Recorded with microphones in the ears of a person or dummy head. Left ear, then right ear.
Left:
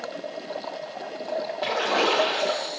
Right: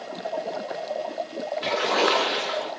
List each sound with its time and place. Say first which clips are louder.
1.6 s a splash: right 1 dB; centre (ahead or behind), 3.5 m